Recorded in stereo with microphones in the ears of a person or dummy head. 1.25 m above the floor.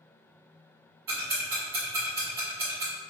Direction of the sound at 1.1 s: 15° right (ahead or behind).